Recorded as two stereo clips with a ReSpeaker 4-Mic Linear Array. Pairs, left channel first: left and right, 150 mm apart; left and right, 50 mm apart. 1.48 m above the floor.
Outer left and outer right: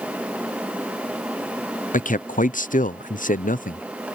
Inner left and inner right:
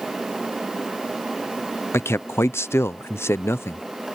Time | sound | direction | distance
1.9 | a man speaking | 60° left (ahead or behind) | ?